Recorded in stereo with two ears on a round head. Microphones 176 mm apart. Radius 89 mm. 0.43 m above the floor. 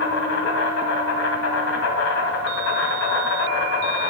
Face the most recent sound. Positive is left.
turn(degrees=75)  # may be behind; listen again after turning